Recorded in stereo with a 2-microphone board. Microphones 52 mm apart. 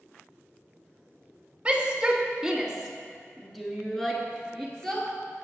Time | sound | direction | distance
1.6 | a shout | 20° right (ahead or behind) | 1.1 m